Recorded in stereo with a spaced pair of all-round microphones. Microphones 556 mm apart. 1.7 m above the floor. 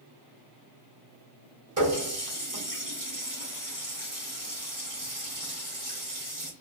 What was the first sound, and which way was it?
A running tap, 35° right (ahead or behind).